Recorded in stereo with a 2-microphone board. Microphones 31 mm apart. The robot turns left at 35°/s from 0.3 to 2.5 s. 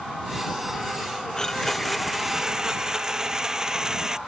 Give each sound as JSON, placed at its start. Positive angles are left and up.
{"t": 1.4, "sound": "a blender", "azimuth_deg": 20}